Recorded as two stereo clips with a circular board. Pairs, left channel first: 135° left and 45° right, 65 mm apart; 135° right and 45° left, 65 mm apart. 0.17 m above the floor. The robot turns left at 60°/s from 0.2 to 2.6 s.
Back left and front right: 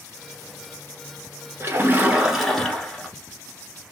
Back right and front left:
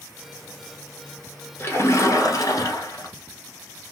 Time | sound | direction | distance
1.6 | a splash | 85° right | 1.2 m